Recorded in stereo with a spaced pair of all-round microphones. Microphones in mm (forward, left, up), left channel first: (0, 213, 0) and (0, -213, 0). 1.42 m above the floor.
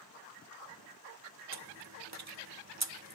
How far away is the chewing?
About 0.7 m.